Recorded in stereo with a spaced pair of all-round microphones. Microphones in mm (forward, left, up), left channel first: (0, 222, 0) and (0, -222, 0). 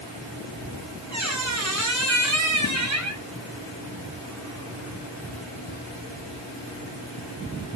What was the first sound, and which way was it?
A squeak, 40° right (ahead or behind).